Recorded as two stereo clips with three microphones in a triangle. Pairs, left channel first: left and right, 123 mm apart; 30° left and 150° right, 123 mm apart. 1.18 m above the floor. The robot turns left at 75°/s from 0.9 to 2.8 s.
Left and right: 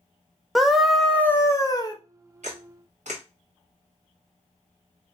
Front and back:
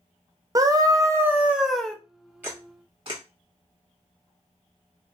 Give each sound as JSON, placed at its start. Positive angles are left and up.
{"t": 0.6, "sound": "a scream", "azimuth_deg": 180, "distance_m": 0.6}
{"t": 2.4, "sound": "a camera shutter", "azimuth_deg": -75, "distance_m": 1.3}